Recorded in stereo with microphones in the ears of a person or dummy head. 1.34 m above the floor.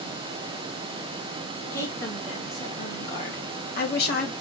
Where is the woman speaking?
20° left (ahead or behind), 2.0 m; by 4.3 s 70° left (ahead or behind), 1.3 m.